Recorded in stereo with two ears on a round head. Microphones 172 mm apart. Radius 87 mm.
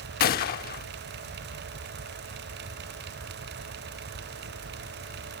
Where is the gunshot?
50° left (ahead or behind).